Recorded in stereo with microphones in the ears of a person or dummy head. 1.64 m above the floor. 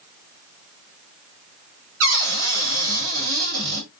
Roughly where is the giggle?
I don't hear a giggle.